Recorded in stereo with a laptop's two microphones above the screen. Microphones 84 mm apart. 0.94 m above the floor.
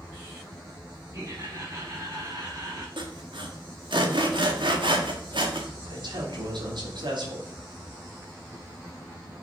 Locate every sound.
1.1 s laughter: 40° right (ahead or behind), 5.5 m; by 2.9 s 45° right (ahead or behind), 4.5 m
3.0 s sawing: 75° right (ahead or behind), 1.6 m
5.8 s a man speaking: 65° right (ahead or behind), 3 m